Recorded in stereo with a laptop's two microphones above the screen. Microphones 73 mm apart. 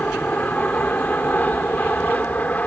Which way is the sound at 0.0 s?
20° left (ahead or behind).